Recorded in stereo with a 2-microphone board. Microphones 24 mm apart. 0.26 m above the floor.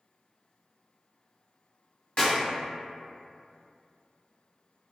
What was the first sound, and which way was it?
A clap, 50° left (ahead or behind).